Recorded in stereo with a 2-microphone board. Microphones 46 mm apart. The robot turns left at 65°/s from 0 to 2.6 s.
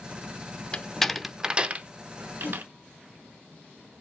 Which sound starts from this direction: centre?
A door slam, at 0.7 s.